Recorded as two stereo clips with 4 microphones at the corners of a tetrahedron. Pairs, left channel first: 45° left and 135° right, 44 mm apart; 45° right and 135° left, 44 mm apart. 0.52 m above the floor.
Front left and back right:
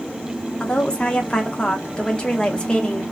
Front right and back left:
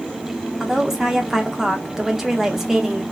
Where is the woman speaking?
70° left, 0.6 m.